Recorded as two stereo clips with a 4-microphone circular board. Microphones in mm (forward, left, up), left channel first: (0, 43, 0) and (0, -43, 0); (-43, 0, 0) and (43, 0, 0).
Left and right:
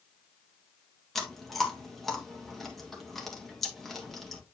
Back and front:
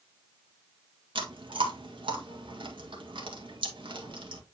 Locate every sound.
1.1 s chewing: straight ahead, 2.0 m